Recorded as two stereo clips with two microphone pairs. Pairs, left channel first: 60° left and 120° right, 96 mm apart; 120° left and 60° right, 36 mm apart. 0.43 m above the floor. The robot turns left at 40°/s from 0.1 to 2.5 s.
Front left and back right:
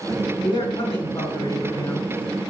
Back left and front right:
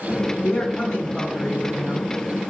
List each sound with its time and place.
0.4 s a man speaking: 70° left, 3 m; by 2.5 s 15° right, 3 m